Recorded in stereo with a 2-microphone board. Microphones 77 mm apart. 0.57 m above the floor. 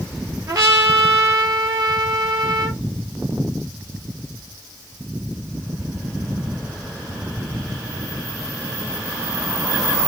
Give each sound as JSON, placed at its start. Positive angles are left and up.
{"t": 0.5, "sound": "a trumpet", "side_deg": -40, "distance_m": 1.6}